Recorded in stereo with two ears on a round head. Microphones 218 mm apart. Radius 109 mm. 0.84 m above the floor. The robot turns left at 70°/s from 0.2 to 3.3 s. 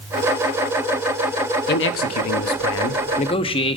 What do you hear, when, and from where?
1.7 s a man speaking: 135° left, 0.9 m; by 3.8 s 20° left, 0.9 m